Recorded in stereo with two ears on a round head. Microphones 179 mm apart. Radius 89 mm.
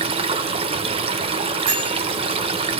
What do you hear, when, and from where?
0.0 s running water: 30° right (ahead or behind), 0.8 m
1.7 s a bell: 35° right (ahead or behind), 4.5 m